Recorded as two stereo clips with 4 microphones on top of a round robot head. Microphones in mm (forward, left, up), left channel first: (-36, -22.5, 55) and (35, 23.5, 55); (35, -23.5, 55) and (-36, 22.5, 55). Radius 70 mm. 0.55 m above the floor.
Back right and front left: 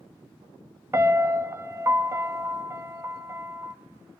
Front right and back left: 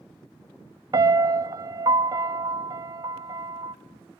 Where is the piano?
100° left, 0.9 m.